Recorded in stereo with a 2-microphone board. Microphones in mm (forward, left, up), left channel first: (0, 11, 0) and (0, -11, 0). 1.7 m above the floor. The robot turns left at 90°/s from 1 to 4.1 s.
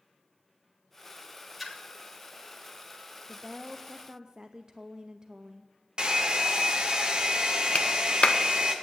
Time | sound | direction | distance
1.6 | a splash | 5° right (ahead or behind) | 1.7 m
3.3 | a woman speaking | 25° left | 0.6 m
6.0 | a hair dryer | 40° right (ahead or behind) | 1.2 m
7.8 | a clap | 60° left (ahead or behind) | 0.8 m